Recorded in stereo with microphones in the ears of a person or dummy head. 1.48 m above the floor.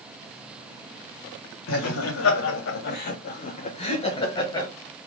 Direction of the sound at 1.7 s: 85° left.